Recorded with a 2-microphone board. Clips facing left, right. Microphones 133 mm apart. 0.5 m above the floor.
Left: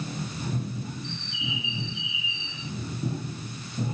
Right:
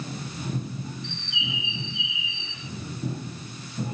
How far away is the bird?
About 3 m.